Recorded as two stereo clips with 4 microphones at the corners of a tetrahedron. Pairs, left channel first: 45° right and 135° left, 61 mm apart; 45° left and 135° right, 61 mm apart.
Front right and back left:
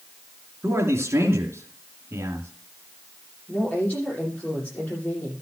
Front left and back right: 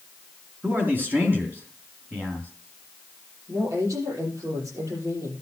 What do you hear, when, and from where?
0.6 s a man speaking: 175° left, 3 m
3.5 s a woman speaking: 110° right, 8 m